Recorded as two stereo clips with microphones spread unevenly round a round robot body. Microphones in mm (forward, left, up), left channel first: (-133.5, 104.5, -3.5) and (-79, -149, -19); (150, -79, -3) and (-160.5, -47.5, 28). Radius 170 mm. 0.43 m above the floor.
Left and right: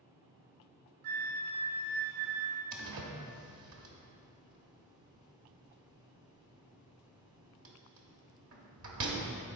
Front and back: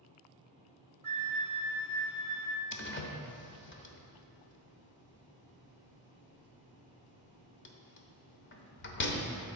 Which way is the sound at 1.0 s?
100° right.